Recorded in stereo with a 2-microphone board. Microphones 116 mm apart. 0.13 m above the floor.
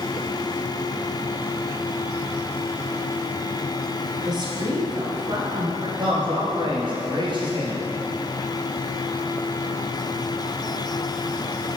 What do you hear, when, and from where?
4.2 s a woman speaking: 40° right (ahead or behind), 1.7 m
6.0 s a man speaking: 45° right (ahead or behind), 2.5 m